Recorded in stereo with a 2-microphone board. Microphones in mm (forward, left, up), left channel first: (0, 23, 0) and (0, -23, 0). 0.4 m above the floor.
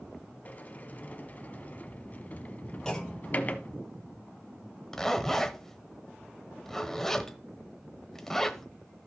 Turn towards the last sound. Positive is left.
turn(degrees=5)  # may be behind; listen again after turning